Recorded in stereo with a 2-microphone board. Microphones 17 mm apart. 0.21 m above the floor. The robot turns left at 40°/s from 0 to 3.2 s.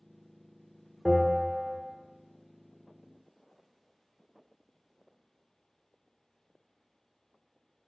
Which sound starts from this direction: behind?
A bell, at 1.1 s.